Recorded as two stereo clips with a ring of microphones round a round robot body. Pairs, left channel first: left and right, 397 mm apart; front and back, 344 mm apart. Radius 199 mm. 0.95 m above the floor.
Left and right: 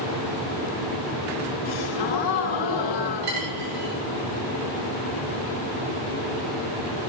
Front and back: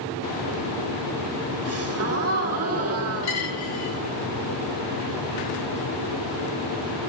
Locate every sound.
1.6 s a gasp: 130° left, 1.8 m
3.2 s a dropped coin: 40° right, 5 m